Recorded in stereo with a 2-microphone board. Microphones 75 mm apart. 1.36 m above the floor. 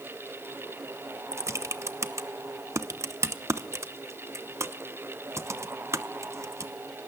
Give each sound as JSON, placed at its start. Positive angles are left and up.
{"t": 1.3, "sound": "typing on a keyboard", "side_deg": -40, "distance_m": 0.9}